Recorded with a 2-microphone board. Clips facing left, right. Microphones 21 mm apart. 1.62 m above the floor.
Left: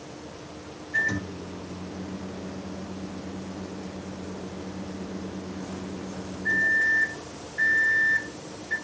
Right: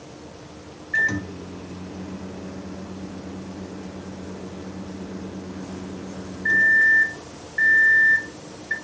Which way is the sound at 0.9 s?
75° right (ahead or behind).